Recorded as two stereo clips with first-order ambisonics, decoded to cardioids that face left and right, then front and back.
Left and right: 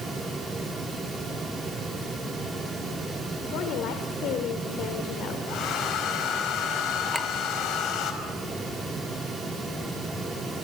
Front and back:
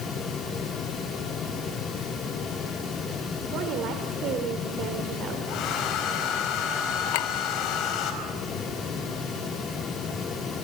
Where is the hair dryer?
45° left, 5 m.